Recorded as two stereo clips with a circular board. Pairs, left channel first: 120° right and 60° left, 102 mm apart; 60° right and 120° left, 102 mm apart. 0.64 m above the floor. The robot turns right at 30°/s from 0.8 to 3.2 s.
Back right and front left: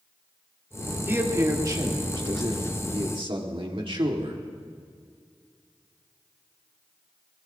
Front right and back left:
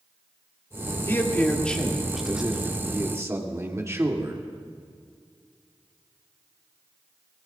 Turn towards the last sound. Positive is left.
turn(degrees=65)